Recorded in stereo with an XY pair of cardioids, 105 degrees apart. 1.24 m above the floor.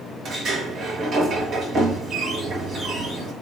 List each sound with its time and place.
0.2 s a sliding door: 65° right, 6 m